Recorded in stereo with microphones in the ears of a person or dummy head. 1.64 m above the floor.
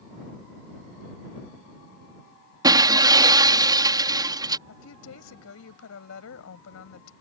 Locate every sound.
2.6 s breaking glass: 20° right (ahead or behind)
4.7 s a woman speaking: 80° left